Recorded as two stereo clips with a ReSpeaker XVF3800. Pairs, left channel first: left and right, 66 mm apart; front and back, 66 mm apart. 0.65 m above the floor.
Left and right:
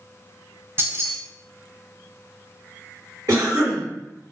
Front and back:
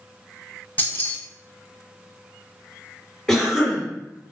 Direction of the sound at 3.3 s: 80° right.